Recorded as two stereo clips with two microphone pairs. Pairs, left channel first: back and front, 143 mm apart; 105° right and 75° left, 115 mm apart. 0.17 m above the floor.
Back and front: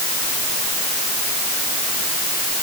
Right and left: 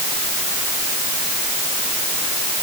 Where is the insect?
I don't hear an insect.